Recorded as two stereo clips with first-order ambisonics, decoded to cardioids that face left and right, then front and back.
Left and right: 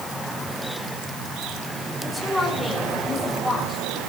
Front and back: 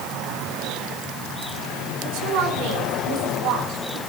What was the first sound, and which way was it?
A woman speaking, straight behind.